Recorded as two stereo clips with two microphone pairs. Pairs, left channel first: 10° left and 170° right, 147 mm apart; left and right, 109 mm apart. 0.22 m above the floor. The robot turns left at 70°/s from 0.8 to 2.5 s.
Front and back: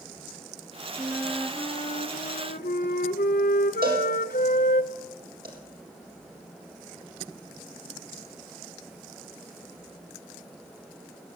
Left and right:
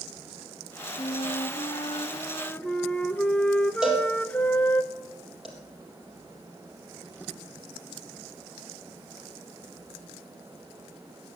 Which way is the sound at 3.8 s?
175° right.